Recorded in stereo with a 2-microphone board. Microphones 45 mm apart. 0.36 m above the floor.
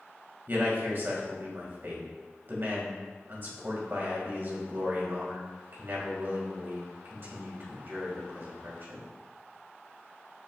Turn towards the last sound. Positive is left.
turn(degrees=-50)  # may be behind; listen again after turning